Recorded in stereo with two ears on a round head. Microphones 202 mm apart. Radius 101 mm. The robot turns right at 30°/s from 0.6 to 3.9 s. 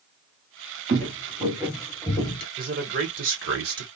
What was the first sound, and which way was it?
Footsteps, 35° right (ahead or behind).